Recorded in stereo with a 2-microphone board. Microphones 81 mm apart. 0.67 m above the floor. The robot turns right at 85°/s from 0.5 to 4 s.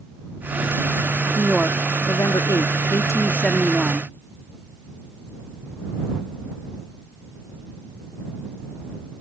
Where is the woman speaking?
10° right; by 4.1 s 145° right.